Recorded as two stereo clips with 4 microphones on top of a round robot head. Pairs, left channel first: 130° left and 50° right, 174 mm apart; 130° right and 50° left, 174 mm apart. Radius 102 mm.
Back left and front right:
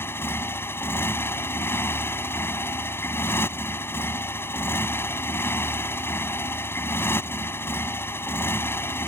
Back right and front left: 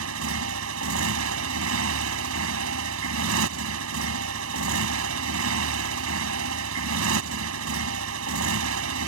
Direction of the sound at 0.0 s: 55° left.